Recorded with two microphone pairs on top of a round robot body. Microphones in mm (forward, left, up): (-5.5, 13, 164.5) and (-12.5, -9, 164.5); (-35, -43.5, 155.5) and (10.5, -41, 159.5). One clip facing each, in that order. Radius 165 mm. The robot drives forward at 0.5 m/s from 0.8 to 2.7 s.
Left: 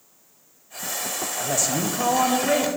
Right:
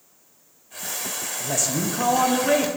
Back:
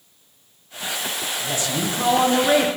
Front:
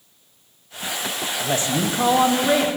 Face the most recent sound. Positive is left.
turn(degrees=-165)